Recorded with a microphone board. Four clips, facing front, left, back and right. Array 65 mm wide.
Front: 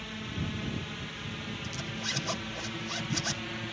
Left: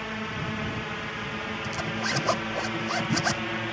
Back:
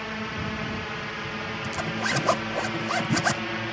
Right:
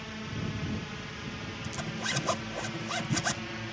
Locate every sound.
0.0 s a drone: 140° left; by 3.7 s 135° left
1.6 s a zipper: 160° left